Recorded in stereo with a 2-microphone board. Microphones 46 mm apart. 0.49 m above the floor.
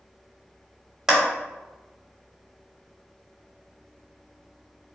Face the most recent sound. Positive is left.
turn(degrees=-15)  # may be behind; listen again after turning